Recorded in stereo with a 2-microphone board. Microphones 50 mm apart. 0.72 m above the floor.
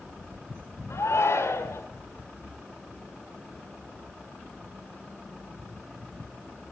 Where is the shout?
65° left (ahead or behind), 3 m.